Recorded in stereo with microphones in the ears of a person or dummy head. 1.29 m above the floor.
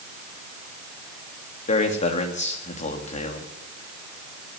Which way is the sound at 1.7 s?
35° left (ahead or behind).